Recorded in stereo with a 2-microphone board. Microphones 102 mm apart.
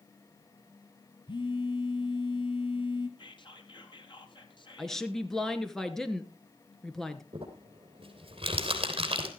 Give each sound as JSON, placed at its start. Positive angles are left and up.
{"t": 1.3, "sound": "a phone buzzing", "side_deg": 50, "distance_m": 1.8}
{"t": 3.2, "sound": "whispering", "side_deg": 50, "distance_m": 2.5}
{"t": 4.8, "sound": "a woman speaking", "side_deg": 5, "distance_m": 1.6}
{"t": 7.3, "sound": "crumpling", "side_deg": -60, "distance_m": 3.5}